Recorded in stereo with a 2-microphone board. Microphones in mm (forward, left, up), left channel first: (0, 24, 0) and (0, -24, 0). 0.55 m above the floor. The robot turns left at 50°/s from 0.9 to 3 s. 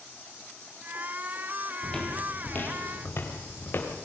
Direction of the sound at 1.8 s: 10° left (ahead or behind).